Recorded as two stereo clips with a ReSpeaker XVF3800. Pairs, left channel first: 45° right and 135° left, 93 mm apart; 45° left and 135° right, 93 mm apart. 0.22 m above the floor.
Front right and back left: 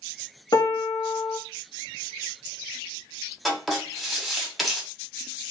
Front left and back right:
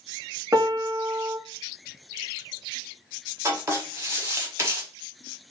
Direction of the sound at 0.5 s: 85° right.